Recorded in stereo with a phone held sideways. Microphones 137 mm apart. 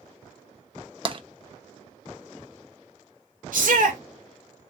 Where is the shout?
75° right (ahead or behind), 0.8 m.